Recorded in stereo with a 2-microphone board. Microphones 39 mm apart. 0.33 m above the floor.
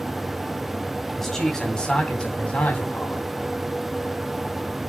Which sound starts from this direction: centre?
A man speaking, at 1.2 s.